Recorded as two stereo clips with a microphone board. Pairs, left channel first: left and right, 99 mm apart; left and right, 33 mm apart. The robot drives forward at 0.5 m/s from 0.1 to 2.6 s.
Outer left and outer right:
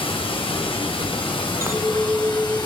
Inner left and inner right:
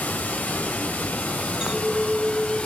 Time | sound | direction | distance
0.0 | running water | 65° left (ahead or behind) | 1.6 m
1.6 | a clink | 25° right (ahead or behind) | 0.8 m